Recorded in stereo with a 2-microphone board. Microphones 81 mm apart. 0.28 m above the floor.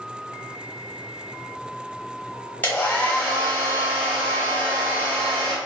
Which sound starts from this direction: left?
A hair dryer, at 2.6 s.